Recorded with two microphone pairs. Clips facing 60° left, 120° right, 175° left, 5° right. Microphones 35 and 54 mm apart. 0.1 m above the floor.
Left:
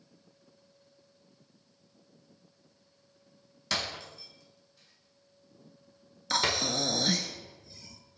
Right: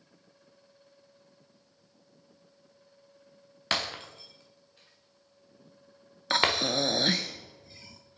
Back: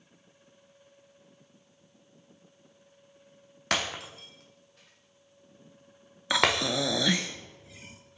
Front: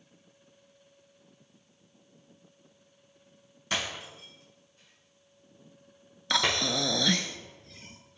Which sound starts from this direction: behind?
Breaking glass, at 3.7 s.